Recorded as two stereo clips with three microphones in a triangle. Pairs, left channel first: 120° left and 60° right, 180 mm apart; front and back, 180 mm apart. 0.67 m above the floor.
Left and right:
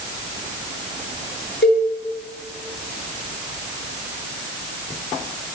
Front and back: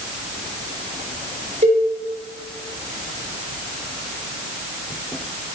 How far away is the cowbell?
About 7 m.